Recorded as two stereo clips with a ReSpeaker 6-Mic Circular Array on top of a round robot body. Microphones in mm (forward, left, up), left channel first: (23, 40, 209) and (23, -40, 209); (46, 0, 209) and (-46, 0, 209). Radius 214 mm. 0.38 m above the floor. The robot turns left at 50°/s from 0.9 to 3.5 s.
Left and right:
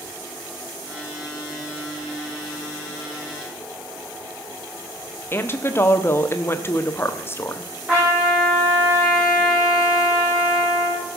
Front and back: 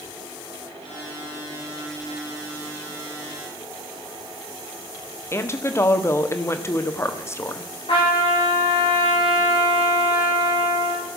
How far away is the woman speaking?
About 1.6 m.